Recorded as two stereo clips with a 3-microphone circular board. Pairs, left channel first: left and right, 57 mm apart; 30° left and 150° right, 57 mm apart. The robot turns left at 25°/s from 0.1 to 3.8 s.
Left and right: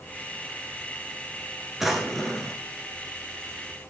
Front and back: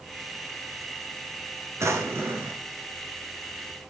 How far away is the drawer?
About 1.5 m.